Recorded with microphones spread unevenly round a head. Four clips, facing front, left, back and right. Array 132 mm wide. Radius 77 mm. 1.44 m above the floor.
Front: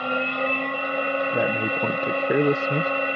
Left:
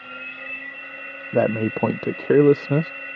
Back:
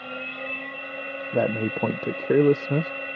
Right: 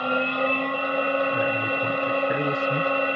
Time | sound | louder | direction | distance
0.0 | a machine running | right 15 dB, front 10 dB | 55° right | ?
1.3 | a man speaking | left 4 dB, front 1 dB | 105° left | ?